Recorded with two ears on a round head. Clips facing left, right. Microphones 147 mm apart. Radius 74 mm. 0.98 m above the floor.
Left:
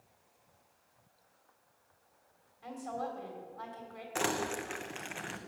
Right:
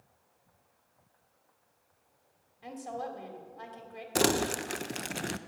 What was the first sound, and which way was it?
A woman speaking, 25° right (ahead or behind).